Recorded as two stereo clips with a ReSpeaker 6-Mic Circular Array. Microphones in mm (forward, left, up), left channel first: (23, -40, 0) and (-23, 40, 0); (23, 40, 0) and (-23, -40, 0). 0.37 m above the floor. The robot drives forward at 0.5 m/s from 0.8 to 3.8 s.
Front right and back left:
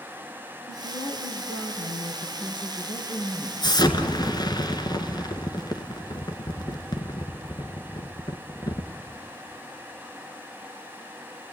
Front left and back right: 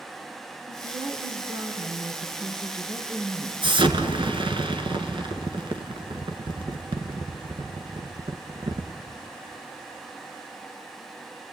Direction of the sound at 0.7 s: 75° right.